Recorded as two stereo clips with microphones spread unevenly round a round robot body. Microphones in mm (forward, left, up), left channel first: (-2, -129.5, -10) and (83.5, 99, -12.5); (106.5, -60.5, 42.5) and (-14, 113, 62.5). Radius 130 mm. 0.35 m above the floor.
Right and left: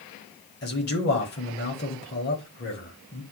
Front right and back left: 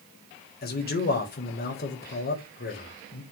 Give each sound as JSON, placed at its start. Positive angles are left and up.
{"t": 0.6, "sound": "a man speaking", "azimuth_deg": -75, "distance_m": 1.4}